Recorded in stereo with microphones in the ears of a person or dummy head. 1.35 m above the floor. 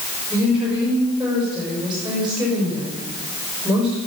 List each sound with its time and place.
0.3 s a woman speaking: 5° right (ahead or behind), 6 m